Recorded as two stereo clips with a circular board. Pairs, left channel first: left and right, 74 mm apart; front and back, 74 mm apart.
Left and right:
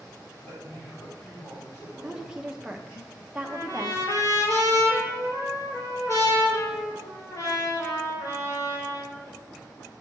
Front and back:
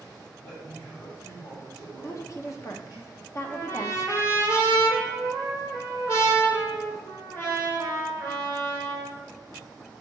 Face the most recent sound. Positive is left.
turn(degrees=45)